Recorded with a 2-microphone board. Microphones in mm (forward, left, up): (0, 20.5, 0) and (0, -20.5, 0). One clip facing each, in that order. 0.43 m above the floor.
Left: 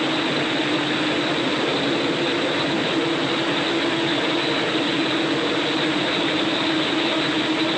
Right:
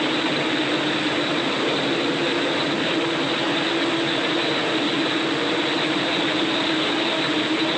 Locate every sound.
Only background noise.